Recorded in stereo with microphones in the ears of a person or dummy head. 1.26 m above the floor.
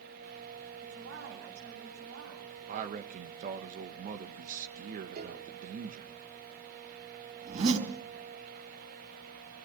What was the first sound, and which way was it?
A woman speaking, 70° right (ahead or behind).